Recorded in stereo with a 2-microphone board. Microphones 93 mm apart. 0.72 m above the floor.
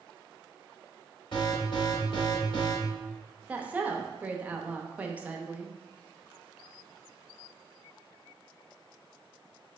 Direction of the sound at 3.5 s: 15° right (ahead or behind).